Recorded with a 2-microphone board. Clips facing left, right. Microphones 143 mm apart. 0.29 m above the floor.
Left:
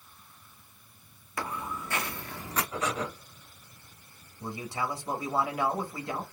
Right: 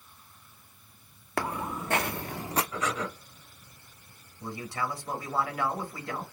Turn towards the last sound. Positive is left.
turn(degrees=20)  # may be behind; listen again after turning